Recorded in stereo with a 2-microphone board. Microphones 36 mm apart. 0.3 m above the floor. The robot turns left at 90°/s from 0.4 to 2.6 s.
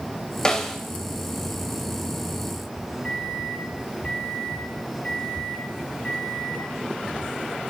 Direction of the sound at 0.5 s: 15° left (ahead or behind).